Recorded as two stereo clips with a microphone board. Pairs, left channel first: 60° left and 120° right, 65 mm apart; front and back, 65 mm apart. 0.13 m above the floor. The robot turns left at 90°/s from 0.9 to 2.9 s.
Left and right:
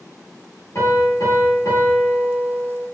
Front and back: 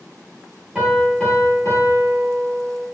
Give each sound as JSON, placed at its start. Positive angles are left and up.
{"t": 0.8, "sound": "a piano", "azimuth_deg": 100, "distance_m": 1.9}